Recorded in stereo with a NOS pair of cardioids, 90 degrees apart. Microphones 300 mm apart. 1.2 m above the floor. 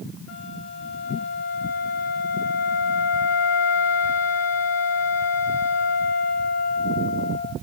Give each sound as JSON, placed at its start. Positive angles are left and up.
{"t": 0.3, "sound": "a flute", "azimuth_deg": 60, "distance_m": 5.5}